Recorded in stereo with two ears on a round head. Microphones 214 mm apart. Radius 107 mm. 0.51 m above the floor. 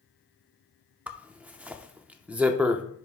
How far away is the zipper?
About 0.5 m.